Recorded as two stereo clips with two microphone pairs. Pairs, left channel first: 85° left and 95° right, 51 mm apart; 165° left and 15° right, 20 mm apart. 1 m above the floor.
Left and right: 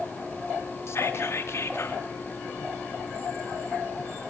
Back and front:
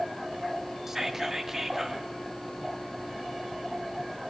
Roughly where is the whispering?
Ahead left.